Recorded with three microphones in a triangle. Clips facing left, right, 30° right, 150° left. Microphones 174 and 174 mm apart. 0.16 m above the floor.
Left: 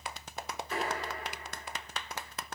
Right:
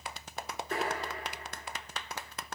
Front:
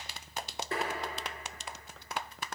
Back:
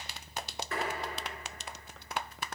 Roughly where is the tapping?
Right.